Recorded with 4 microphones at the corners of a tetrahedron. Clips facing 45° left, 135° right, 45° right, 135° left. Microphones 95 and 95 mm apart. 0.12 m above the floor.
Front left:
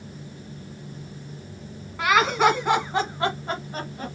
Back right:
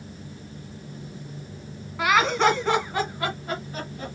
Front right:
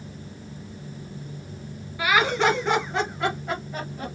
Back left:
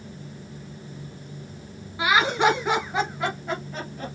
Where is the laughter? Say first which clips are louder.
Front left 1 dB, back left 1 dB; 145° left, 1.4 m; by 4.2 s 30° left, 1.9 m.